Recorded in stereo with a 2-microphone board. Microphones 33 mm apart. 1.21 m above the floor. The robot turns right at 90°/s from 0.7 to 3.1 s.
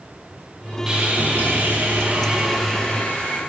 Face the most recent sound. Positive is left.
turn(degrees=45)